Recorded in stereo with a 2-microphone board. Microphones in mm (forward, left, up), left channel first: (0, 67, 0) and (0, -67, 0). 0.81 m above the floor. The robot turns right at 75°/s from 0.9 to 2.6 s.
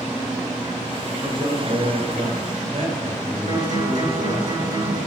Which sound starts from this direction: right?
A guitar, at 3.5 s.